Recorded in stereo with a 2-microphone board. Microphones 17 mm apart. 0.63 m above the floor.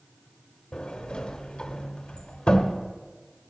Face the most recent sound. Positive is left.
turn(degrees=75)  # may be behind; listen again after turning